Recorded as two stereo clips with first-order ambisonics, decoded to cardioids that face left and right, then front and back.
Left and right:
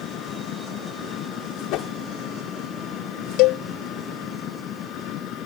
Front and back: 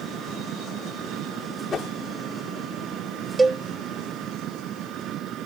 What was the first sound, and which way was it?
An engine running, 135° left.